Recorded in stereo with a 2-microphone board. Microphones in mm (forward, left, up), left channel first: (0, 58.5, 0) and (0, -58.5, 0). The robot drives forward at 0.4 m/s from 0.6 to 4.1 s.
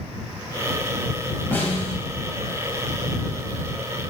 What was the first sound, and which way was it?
A snare drum, 15° left (ahead or behind).